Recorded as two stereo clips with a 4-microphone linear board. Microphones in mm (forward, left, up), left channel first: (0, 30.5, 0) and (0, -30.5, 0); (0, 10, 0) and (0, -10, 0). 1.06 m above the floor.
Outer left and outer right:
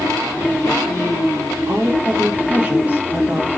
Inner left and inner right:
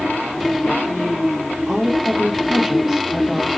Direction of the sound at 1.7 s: 25° right (ahead or behind).